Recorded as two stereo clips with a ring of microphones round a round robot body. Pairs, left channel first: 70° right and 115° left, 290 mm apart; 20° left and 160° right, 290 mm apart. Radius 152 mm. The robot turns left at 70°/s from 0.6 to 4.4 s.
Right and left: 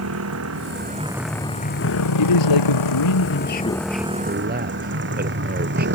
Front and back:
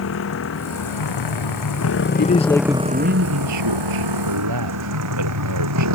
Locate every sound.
0.0 s a motorcycle: 70° left; by 6.0 s 165° left
2.2 s a man speaking: 30° right; by 5.9 s 170° left